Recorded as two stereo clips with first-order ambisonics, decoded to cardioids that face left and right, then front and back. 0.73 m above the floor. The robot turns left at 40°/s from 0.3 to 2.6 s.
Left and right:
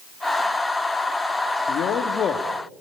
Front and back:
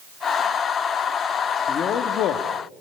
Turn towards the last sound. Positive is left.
turn(degrees=20)